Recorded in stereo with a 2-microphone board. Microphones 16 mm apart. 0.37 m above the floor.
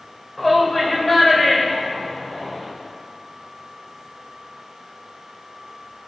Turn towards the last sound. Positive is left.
turn(degrees=20)  # may be behind; listen again after turning